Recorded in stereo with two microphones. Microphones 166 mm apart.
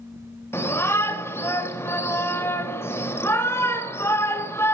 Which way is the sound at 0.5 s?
15° left (ahead or behind).